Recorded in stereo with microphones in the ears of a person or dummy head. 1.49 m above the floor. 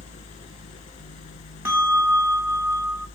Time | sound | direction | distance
0.0 | a fan | 35° left (ahead or behind) | 1.3 m
1.6 | a bell | 10° right (ahead or behind) | 1.0 m